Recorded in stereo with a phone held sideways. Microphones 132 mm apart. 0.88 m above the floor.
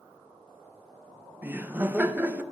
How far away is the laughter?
About 0.5 m.